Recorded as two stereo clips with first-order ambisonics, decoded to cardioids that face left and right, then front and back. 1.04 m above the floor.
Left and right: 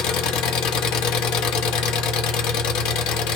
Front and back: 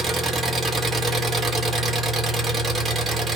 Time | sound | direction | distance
0.0 | an engine running | 110° left | 0.7 m